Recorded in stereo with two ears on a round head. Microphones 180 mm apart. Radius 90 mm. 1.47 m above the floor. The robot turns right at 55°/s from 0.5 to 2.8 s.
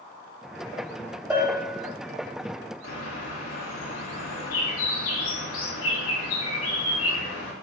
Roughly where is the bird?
Left.